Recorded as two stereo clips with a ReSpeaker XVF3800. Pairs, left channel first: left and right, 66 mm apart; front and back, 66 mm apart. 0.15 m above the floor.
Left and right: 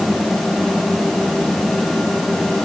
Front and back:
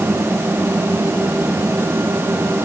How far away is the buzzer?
I don't hear a buzzer.